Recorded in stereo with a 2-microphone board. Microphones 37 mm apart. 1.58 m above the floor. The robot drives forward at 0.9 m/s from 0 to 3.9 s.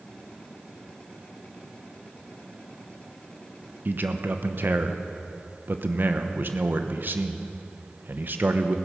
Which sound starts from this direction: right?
A man speaking, at 3.9 s.